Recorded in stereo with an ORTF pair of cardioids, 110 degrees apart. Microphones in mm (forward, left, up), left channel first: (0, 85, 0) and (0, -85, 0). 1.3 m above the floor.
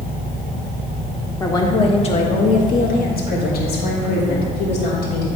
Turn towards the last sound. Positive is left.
turn(degrees=70)